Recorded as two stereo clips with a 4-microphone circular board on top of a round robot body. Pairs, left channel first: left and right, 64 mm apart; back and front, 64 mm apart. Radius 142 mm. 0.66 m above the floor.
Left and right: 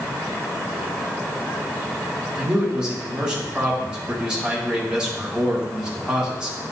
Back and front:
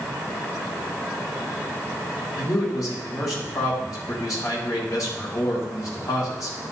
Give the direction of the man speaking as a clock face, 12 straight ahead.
6 o'clock.